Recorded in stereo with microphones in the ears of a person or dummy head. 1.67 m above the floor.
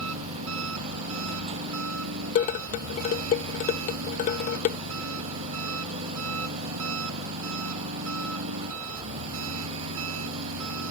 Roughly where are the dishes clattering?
Left.